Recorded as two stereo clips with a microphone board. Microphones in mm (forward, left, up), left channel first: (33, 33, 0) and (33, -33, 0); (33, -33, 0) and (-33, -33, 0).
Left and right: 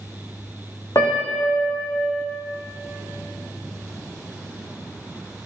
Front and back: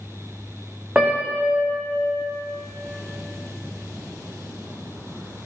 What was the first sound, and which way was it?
A piano, 115° left.